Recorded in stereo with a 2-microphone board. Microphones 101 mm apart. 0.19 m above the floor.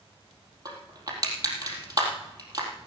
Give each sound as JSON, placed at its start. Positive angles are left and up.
{"t": 0.7, "sound": "crushing", "side_deg": -40, "distance_m": 3.5}